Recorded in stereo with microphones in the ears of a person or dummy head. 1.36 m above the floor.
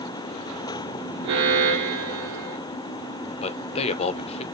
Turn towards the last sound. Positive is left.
turn(degrees=35)  # may be behind; listen again after turning